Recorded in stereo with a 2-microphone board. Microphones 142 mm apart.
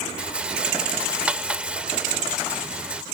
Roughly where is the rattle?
Centre.